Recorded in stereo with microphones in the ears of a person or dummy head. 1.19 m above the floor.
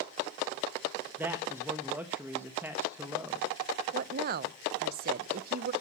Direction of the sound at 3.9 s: 50° right (ahead or behind).